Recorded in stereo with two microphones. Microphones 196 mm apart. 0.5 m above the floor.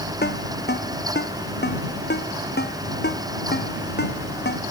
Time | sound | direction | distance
0.2 | a ringtone | 55° left (ahead or behind) | ?